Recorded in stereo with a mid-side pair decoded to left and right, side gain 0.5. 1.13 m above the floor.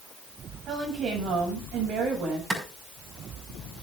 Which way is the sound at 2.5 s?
25° right.